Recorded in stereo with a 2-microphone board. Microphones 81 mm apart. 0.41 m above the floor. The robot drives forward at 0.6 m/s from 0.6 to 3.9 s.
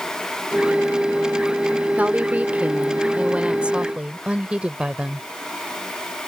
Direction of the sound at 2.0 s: 20° right (ahead or behind).